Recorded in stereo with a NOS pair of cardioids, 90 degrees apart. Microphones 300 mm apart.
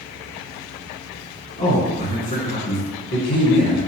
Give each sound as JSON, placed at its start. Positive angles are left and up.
{"t": 1.6, "sound": "a man speaking", "azimuth_deg": 30, "distance_m": 1.3}